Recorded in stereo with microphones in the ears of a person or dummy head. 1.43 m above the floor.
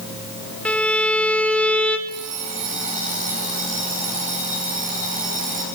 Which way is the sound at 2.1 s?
45° right (ahead or behind).